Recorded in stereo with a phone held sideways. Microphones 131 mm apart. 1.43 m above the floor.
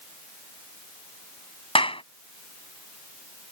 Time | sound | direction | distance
1.8 | a clap | 40° left (ahead or behind) | ?